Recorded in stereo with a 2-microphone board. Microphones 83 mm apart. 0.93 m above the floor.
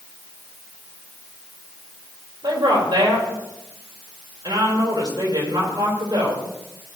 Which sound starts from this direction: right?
A woman speaking, at 2.4 s.